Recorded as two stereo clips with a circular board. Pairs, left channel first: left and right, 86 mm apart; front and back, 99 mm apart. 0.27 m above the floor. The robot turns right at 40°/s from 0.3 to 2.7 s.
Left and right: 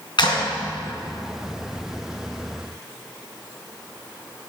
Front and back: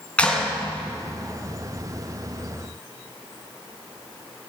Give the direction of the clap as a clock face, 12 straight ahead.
9 o'clock.